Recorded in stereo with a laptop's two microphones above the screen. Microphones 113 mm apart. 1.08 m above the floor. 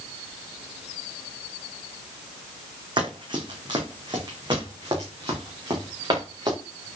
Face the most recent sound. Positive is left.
turn(degrees=-40)  # may be behind; listen again after turning